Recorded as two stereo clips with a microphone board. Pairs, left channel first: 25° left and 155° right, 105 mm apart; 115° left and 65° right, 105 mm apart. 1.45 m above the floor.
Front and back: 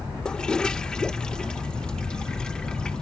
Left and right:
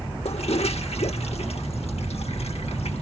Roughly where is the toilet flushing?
Left.